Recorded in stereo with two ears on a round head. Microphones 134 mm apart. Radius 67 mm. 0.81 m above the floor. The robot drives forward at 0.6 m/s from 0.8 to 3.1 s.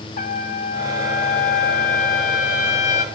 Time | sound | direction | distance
0.2 | a trumpet | 50° left (ahead or behind) | 1.5 m